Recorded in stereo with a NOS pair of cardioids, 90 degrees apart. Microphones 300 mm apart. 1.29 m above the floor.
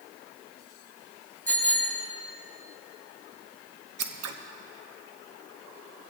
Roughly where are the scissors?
Ahead right.